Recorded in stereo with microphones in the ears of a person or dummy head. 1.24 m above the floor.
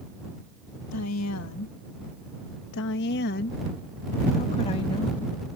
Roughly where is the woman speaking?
Left.